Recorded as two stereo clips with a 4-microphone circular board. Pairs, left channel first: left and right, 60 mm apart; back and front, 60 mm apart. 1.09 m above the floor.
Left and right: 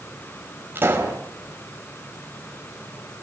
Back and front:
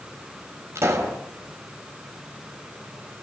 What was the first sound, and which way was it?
A pop, 40° right.